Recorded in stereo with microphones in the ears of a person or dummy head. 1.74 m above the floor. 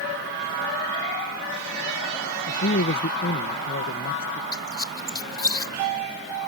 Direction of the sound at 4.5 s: 20° left (ahead or behind).